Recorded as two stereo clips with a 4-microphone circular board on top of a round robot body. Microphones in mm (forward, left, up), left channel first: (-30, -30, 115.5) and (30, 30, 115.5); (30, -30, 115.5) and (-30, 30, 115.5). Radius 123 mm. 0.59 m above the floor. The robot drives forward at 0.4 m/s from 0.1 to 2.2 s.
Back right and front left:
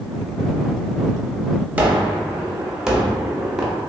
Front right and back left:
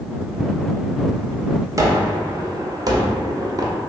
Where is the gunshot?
110° left, 0.8 m; by 3.8 s 125° left, 0.9 m.